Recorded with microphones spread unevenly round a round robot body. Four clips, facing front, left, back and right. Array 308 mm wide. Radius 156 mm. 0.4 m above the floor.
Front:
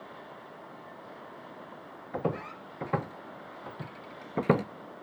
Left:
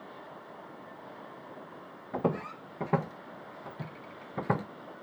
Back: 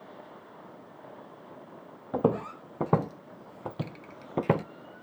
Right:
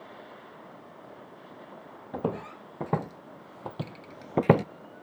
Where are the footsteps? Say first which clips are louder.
Left 1 dB, back 6 dB; 175° right, 1.7 m; by 4.7 s 70° right, 0.6 m.